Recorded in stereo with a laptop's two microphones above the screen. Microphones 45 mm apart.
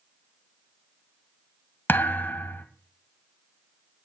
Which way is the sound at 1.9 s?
45° left (ahead or behind).